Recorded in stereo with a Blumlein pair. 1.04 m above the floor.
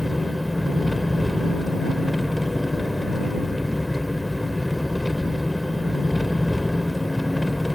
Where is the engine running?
5° left.